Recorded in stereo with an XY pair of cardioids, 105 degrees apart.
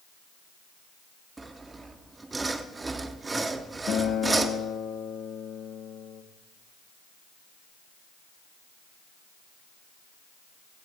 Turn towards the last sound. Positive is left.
turn(degrees=60)